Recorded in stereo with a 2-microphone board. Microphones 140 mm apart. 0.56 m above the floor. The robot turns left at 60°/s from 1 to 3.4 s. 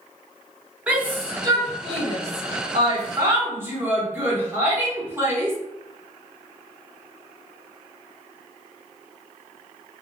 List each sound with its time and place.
0.9 s a shout: 10° right (ahead or behind), 1.2 m; by 5.6 s 15° right (ahead or behind), 1.2 m